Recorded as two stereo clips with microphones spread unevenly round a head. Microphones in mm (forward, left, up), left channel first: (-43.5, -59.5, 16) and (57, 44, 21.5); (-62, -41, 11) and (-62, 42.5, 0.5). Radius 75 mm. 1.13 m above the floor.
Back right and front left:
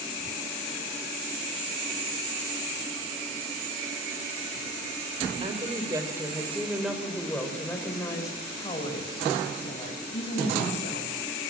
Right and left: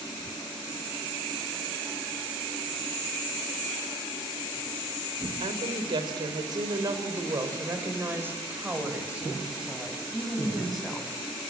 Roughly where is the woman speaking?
Left.